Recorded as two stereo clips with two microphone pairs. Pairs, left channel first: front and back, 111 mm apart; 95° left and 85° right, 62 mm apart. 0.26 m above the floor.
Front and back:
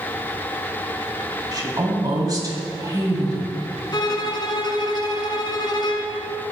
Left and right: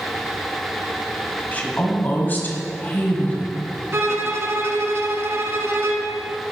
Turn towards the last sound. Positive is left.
turn(degrees=-45)